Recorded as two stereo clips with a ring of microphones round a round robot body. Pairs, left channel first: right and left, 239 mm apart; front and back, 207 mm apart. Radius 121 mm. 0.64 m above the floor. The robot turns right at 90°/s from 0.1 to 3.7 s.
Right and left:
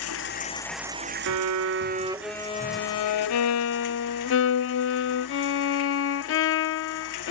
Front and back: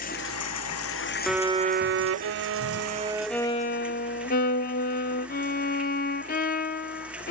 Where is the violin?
85° left; by 7.3 s 55° right.